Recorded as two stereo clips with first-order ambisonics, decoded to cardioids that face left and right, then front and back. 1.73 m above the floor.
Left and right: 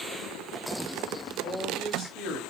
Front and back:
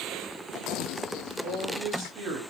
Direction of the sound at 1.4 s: 125° left.